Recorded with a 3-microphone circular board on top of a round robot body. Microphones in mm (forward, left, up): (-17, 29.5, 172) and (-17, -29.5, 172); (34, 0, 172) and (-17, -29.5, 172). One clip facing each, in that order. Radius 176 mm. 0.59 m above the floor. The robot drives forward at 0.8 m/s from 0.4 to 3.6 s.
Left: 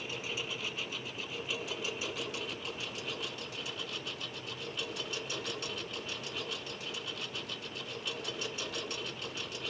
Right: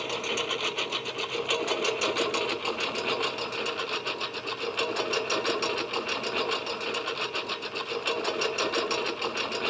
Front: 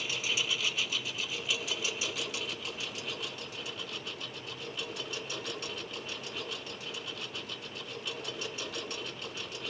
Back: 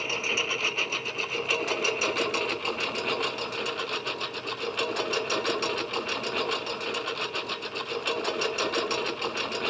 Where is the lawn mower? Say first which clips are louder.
Right 9 dB, back 5 dB; 100° right; by 9.7 s 120° right.